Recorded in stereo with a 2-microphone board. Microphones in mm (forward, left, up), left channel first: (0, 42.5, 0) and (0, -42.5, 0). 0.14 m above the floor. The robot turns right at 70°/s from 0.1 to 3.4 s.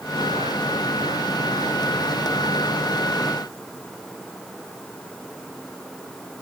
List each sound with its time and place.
Only background noise.